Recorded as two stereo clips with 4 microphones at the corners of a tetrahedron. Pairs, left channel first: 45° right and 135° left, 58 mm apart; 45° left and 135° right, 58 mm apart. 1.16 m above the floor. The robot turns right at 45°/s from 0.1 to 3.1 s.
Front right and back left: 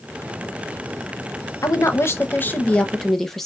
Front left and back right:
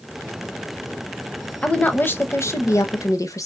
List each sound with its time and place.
1.6 s a woman speaking: 25° right, 0.7 m; by 3.5 s 40° left, 0.7 m